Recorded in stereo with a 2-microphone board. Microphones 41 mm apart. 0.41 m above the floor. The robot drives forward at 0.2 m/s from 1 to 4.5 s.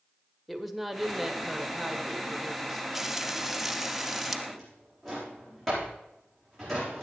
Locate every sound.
0.5 s a woman speaking: 5° right (ahead or behind), 1.4 m
3.0 s frying: 10° right (ahead or behind), 0.5 m; by 4.4 s 5° right (ahead or behind), 0.8 m
4.5 s a drawer: 5° left (ahead or behind), 7.5 m